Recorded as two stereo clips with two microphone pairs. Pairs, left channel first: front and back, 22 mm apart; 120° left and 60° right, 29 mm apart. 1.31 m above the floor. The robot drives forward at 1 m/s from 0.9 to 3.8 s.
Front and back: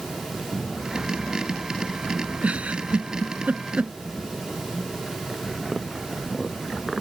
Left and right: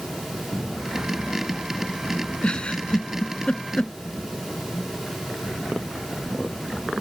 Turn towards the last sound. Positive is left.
turn(degrees=175)